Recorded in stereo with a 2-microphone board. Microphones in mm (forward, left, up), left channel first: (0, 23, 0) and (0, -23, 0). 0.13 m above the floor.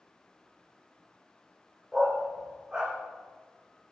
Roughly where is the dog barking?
Centre.